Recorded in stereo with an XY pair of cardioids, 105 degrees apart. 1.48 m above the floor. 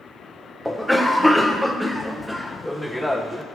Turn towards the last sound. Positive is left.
turn(degrees=5)